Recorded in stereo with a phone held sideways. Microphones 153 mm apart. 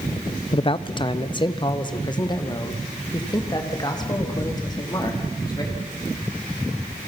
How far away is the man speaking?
About 0.5 m.